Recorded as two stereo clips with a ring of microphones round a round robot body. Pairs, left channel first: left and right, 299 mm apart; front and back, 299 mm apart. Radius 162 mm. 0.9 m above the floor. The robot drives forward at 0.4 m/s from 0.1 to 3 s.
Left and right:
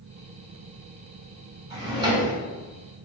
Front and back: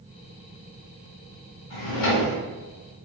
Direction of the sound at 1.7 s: 15° right.